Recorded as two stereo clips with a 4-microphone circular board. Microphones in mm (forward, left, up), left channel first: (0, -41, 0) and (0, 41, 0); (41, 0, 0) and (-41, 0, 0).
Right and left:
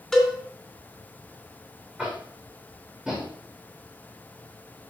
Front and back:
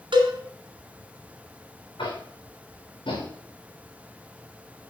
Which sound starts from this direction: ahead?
Tapping, at 2.0 s.